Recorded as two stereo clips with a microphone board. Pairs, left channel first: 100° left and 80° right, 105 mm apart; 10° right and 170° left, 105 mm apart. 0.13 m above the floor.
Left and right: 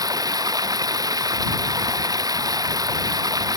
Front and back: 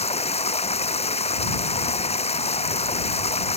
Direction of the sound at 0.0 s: 25° right.